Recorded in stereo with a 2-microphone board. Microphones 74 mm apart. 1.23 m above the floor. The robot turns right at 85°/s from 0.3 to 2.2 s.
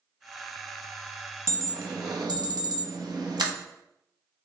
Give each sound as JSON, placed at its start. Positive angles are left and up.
{"t": 1.5, "sound": "an alarm", "side_deg": -35, "distance_m": 0.9}